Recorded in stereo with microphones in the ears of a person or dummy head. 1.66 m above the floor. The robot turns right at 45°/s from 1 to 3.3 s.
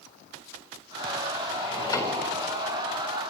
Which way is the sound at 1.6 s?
35° left (ahead or behind).